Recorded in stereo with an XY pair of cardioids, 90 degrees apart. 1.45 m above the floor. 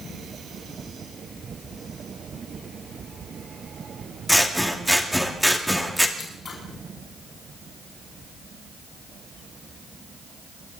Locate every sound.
4.3 s scissors: straight ahead, 2 m
6.2 s scissors: 50° left, 4.5 m